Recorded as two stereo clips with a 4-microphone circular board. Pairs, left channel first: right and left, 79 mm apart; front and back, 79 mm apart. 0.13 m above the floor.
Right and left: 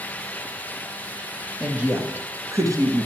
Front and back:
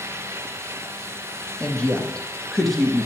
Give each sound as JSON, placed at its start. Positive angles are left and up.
{"t": 1.6, "sound": "a woman speaking", "azimuth_deg": 45, "distance_m": 1.2}